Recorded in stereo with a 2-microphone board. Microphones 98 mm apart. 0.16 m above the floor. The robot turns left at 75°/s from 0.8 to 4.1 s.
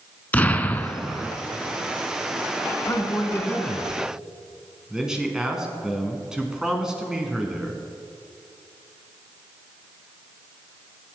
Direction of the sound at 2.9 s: 80° left.